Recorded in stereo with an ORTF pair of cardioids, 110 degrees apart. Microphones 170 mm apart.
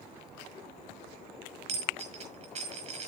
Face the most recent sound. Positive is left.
turn(degrees=-40)